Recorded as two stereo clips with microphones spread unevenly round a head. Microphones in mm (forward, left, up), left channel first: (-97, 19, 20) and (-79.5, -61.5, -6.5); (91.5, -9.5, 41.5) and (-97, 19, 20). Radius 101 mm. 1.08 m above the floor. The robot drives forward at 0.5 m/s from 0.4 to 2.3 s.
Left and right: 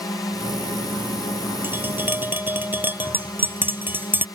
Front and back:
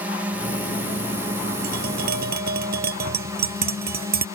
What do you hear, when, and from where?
0.0 s a drone: 115° left; by 4.4 s 130° left
1.6 s tapping: 145° right